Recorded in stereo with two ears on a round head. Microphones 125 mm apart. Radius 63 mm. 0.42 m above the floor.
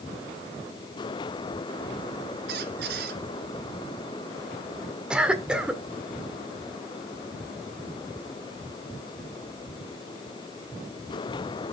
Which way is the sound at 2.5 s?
75° right (ahead or behind).